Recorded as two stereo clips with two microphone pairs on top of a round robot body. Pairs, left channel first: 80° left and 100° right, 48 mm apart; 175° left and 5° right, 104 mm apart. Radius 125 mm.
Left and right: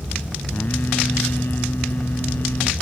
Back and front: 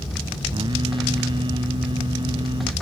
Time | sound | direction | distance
0.5 | singing | 35° left | ?